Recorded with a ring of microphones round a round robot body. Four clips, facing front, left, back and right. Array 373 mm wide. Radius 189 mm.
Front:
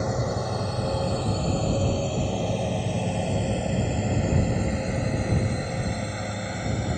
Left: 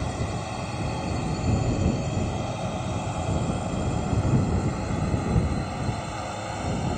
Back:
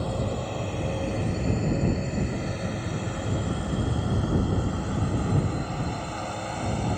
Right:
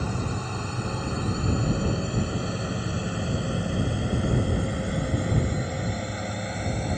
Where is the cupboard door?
No cupboard door in this recording.